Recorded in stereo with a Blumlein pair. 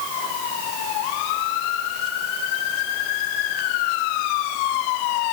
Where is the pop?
No pop in this recording.